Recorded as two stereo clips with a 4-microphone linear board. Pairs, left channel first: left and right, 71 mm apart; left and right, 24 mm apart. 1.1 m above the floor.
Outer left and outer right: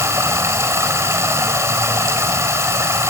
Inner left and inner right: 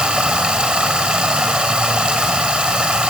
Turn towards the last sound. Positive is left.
turn(degrees=-40)  # may be behind; listen again after turning